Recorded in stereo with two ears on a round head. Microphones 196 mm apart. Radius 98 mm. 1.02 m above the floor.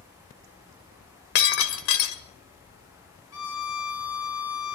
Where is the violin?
70° left (ahead or behind), 5.5 m.